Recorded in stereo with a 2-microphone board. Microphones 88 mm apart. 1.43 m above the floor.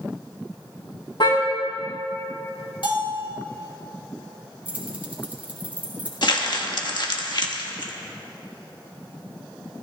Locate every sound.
1.2 s a car horn: 60° left (ahead or behind), 4 m
2.8 s a bell: 75° left (ahead or behind), 3.5 m
4.7 s keys jangling: 20° right (ahead or behind), 3.5 m
6.2 s crumpling: 55° left (ahead or behind), 1.6 m